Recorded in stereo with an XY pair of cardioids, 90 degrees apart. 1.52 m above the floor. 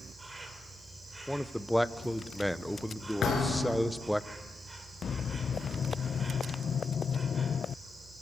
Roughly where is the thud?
Ahead left.